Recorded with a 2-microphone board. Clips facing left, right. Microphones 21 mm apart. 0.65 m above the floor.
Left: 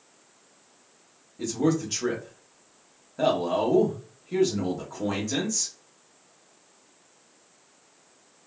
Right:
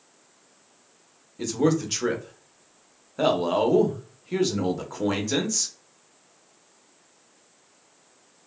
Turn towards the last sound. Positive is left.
turn(degrees=-30)  # may be behind; listen again after turning